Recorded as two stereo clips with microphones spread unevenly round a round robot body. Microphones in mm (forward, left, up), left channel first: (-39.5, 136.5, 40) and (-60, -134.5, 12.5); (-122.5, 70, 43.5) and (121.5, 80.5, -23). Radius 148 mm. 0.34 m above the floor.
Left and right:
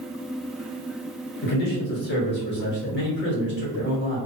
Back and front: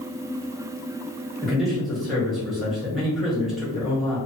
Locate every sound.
1.4 s a man speaking: 65° left, 1.0 m